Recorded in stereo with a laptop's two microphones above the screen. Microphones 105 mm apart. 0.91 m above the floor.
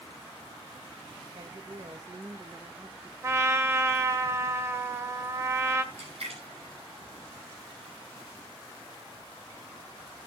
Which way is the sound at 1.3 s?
55° right (ahead or behind).